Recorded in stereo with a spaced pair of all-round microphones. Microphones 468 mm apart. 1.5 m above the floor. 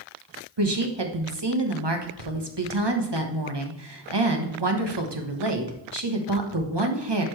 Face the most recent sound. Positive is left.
turn(degrees=-60)  # may be behind; listen again after turning